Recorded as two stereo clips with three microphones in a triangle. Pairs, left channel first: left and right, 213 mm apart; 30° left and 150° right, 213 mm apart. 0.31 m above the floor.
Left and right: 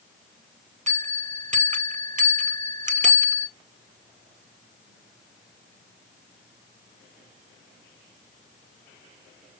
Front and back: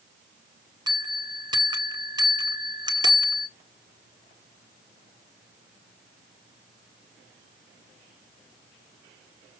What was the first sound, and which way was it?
A bell, 95° right.